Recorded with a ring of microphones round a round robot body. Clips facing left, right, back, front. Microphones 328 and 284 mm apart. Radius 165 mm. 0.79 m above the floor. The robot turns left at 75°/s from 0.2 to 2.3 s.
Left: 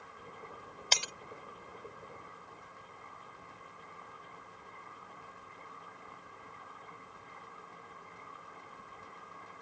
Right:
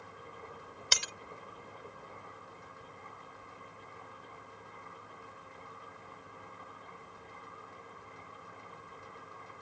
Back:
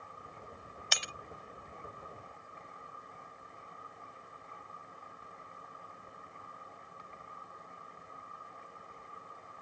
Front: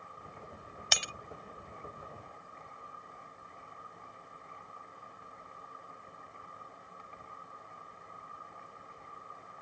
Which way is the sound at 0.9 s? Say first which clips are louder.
Left 2 dB, front 3 dB; 15° right.